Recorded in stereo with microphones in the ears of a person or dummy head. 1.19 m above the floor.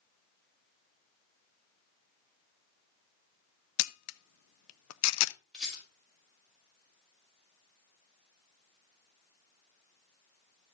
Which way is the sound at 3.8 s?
80° left.